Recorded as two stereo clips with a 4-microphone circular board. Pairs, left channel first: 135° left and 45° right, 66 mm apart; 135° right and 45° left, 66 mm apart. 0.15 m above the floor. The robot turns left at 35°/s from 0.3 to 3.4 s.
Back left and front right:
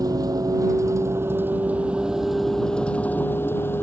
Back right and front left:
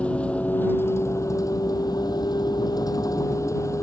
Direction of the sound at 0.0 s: 65° right.